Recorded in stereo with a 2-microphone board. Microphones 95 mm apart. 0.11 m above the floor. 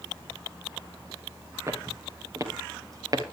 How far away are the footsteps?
About 2.5 m.